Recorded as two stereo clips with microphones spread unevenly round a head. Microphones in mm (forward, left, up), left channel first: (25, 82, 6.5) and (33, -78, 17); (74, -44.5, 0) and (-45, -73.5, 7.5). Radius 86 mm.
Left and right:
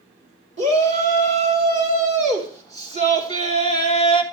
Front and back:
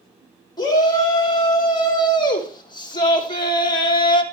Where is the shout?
40° right, 4.5 m; by 4.2 s 35° right, 2 m.